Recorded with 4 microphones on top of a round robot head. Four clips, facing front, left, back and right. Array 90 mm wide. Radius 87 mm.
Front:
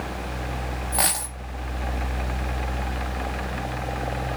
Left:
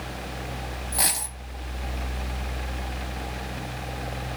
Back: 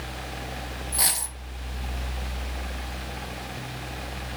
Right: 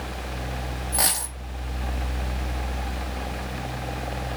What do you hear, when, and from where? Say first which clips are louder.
0.9 s a dropped coin: right 2 dB, front 7 dB; 20° right, 0.6 m